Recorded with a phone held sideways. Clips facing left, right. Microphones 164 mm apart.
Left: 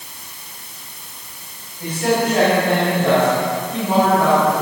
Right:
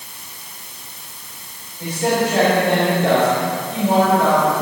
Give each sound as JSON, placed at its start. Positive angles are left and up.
{"t": 1.8, "sound": "a man speaking", "side_deg": -25, "distance_m": 6.0}